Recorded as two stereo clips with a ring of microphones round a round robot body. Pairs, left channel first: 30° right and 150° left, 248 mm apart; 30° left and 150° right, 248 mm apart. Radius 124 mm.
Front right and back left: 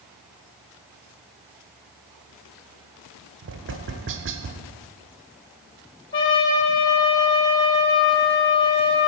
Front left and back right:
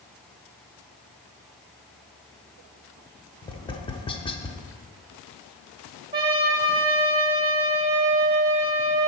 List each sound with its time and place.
3.4 s tapping: 105° left, 0.7 m
6.1 s a trumpet: 75° right, 2 m